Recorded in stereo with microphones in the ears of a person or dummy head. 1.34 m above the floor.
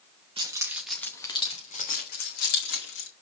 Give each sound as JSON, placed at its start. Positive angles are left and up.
{"t": 0.4, "sound": "keys jangling", "side_deg": -25, "distance_m": 1.2}